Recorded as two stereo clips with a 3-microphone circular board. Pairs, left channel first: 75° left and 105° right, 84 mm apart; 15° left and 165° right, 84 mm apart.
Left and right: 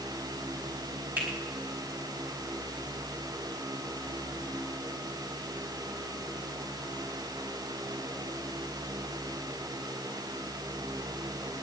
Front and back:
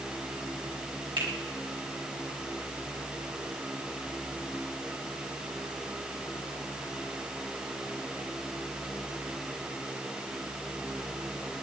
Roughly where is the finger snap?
Behind.